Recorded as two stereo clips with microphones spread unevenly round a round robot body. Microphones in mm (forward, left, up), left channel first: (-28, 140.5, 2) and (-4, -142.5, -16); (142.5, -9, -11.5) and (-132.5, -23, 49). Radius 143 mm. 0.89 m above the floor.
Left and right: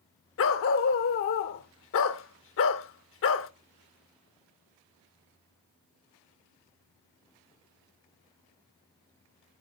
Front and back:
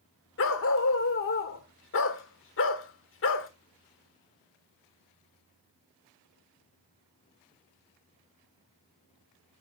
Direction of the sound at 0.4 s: 55° left.